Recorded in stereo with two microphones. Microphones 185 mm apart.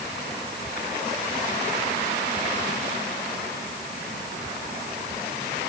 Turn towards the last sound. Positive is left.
No sound to turn to.